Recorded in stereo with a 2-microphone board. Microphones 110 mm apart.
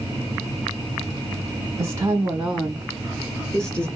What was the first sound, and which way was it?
A woman speaking, 25° right (ahead or behind).